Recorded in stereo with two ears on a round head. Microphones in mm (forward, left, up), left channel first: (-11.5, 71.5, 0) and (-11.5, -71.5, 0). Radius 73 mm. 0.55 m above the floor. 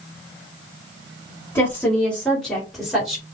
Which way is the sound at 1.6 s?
15° left (ahead or behind).